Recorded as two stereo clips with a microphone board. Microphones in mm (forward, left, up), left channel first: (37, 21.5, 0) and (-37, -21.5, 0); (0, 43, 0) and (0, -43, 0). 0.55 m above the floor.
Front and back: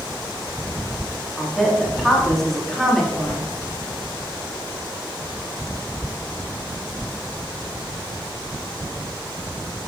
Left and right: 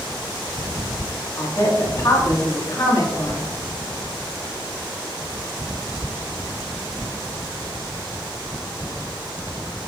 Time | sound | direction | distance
1.4 | a woman speaking | 120° left | 1.7 m